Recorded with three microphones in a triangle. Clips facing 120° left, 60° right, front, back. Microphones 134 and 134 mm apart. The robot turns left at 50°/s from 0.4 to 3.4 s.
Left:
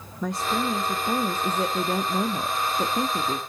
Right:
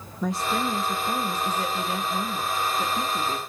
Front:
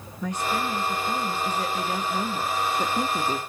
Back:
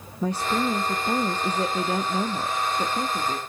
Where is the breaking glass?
No breaking glass in this recording.